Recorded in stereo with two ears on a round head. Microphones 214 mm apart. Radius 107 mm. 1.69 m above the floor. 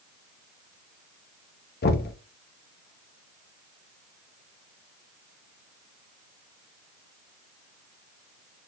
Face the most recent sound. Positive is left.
turn(degrees=40)  # may be behind; listen again after turning